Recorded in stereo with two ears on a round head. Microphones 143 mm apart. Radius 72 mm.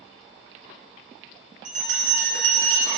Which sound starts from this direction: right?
A bell, at 1.6 s.